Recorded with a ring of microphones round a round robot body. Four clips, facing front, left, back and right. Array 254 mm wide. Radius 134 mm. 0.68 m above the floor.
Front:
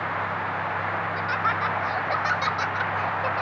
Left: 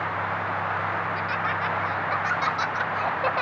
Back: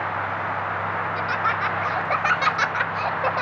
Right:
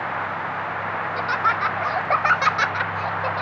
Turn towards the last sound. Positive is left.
turn(degrees=130)